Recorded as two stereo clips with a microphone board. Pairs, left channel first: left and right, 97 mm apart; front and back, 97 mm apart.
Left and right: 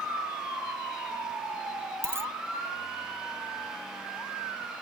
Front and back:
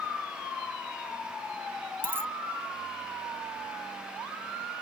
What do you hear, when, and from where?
2.0 s a dropped coin: 130° right